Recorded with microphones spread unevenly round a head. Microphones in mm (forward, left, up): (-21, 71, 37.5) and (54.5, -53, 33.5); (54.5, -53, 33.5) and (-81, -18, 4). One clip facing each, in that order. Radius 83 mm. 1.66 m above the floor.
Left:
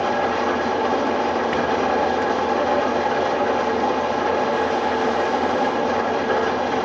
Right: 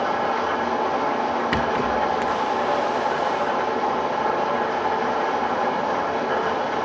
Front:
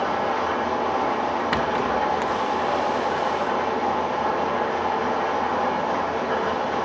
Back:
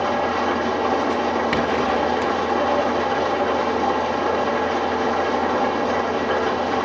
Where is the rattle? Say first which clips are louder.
Left 2 dB, back 3 dB; 120° right, 0.6 m.